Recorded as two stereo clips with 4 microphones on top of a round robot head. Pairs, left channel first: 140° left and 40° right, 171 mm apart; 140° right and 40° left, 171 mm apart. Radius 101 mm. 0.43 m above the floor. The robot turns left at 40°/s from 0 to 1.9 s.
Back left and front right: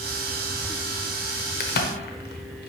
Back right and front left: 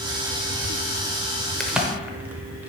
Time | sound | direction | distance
1.6 | a crack | 135° left | 0.9 m